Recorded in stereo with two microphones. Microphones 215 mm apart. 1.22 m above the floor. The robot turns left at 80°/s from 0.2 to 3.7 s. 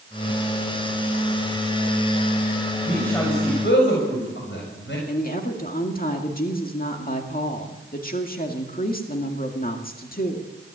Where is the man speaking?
10° right (ahead or behind), 7 m; by 5.0 s 60° left (ahead or behind), 7 m.